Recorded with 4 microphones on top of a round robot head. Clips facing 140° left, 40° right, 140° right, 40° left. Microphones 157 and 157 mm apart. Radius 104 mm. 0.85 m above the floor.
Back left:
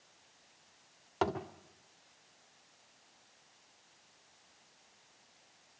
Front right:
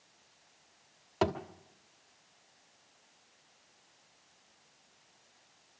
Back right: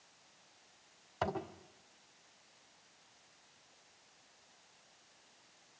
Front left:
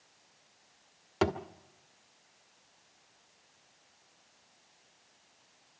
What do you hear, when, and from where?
1.2 s a thud: 40° left, 1.5 m